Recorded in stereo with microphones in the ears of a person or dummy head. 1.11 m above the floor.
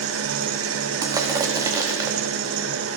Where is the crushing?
20° right (ahead or behind), 0.9 m.